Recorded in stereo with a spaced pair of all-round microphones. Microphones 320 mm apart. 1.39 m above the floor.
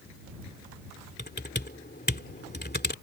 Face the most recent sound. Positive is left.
turn(degrees=30)  # may be behind; listen again after turning